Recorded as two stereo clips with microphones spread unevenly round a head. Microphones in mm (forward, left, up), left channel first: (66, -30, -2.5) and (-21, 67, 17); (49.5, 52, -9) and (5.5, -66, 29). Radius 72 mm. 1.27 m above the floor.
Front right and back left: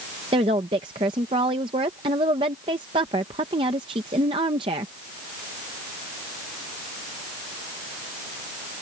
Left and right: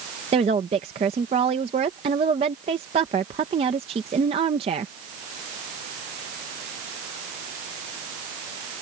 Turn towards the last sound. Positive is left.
turn(degrees=-170)